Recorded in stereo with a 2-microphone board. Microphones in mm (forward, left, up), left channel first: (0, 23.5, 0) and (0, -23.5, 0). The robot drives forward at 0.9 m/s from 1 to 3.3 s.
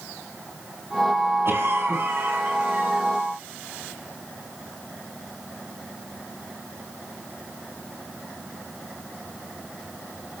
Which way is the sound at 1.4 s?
60° right (ahead or behind).